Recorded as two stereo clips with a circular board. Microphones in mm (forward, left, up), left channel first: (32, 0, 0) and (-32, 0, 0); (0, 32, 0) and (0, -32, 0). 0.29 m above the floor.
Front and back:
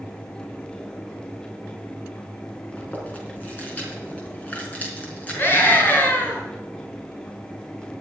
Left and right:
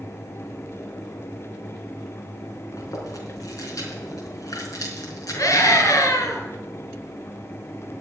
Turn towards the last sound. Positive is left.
turn(degrees=55)